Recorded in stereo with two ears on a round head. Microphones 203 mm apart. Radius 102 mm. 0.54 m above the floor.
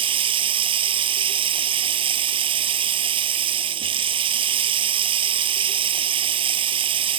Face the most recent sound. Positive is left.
turn(degrees=-20)  # may be behind; listen again after turning